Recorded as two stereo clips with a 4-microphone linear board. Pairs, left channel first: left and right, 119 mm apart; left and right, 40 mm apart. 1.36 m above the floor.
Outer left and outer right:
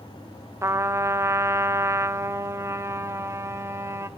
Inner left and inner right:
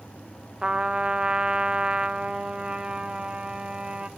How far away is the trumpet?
About 0.8 m.